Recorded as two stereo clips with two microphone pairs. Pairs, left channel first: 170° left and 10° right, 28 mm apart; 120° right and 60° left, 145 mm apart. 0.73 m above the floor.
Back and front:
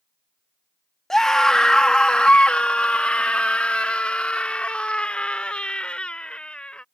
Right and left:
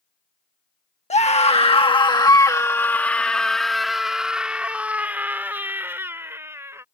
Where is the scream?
120° right; by 6.8 s 130° left.